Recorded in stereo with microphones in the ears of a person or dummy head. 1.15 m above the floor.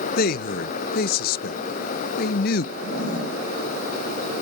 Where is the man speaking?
55° left (ahead or behind), 0.7 m.